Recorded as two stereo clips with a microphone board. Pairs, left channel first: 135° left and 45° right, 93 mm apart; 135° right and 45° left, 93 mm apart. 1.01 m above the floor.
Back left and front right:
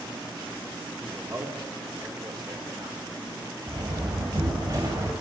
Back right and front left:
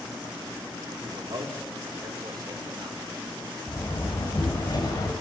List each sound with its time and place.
1.0 s a man speaking: 20° left, 2.5 m; by 3.0 s 10° right, 4.5 m
3.7 s a door slam: 95° right, 3.5 m